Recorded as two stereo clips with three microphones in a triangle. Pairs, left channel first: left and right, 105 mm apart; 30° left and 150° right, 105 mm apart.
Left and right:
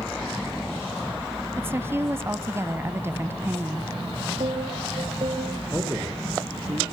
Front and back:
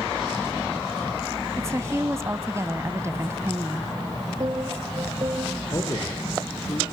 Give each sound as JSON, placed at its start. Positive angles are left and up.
{"t": 1.6, "sound": "a woman speaking", "azimuth_deg": -125, "distance_m": 1.0}
{"t": 4.4, "sound": "a piano", "azimuth_deg": -105, "distance_m": 2.5}
{"t": 5.7, "sound": "a man speaking", "azimuth_deg": -25, "distance_m": 5.0}